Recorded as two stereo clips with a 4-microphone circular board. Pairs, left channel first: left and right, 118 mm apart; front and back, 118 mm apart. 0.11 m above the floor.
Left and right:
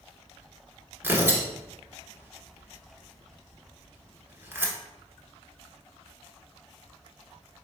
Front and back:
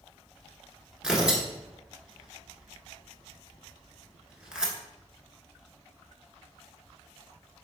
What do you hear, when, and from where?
1.0 s tearing paper: 105° right, 1.1 m